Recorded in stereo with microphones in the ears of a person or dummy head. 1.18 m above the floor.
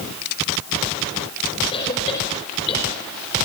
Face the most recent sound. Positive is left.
turn(degrees=30)  # may be behind; listen again after turning